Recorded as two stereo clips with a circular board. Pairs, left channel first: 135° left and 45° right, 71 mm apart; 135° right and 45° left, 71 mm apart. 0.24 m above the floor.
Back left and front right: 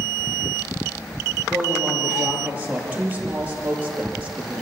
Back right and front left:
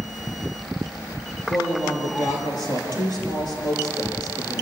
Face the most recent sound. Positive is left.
turn(degrees=-115)